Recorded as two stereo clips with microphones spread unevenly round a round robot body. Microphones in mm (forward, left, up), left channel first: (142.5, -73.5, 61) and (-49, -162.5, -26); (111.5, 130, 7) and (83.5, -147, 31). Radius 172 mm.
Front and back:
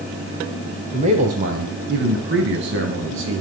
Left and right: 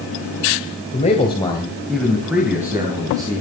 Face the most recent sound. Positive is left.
turn(degrees=-175)